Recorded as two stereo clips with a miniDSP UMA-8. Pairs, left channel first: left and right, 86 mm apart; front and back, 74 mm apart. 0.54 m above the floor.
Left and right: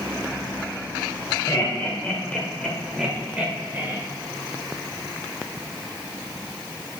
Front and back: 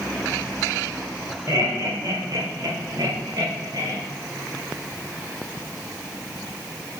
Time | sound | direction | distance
1.5 | laughter | 145° left | 1.9 m